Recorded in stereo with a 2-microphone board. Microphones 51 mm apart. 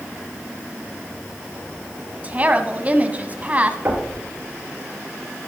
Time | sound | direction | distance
2.2 | a woman speaking | 30° right (ahead or behind) | 1.5 m
3.9 | knocking | 40° right (ahead or behind) | 4.5 m